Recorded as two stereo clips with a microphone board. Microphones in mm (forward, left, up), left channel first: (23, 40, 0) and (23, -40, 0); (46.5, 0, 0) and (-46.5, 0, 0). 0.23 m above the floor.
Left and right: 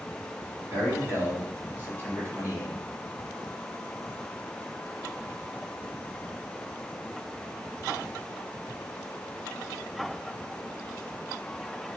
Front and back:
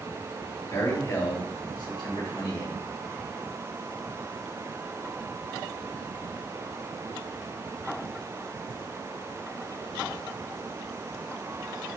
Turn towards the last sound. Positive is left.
turn(degrees=-30)